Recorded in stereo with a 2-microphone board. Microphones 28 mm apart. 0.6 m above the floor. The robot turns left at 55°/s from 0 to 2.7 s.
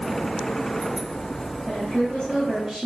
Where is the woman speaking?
55° left, 3.5 m; by 2.9 s straight ahead, 3.5 m.